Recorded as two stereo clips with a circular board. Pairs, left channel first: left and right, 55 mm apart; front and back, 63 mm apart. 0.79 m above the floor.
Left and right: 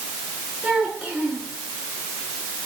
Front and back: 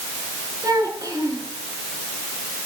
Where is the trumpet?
No trumpet in this recording.